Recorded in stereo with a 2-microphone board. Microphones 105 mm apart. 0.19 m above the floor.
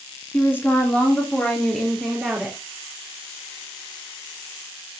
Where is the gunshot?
No gunshot in this recording.